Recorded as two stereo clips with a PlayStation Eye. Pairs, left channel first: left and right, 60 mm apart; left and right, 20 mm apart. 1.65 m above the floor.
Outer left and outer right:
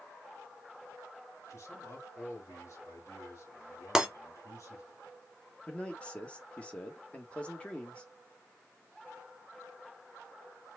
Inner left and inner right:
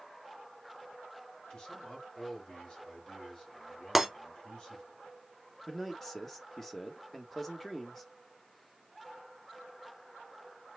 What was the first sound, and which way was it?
A man speaking, 55° left (ahead or behind).